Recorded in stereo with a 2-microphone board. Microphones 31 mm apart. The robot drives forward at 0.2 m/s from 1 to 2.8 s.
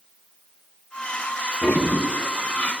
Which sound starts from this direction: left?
A toilet flushing, at 1.6 s.